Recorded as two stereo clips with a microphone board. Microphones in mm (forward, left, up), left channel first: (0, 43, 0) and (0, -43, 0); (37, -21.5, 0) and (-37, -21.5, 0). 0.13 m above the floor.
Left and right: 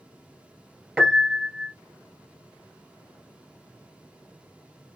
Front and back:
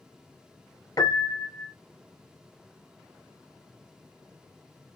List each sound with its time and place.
1.0 s a piano: 15° right, 1.4 m